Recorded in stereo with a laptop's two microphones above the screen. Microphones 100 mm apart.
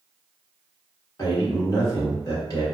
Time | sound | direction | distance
1.2 | a man speaking | 35° left (ahead or behind) | 1.0 m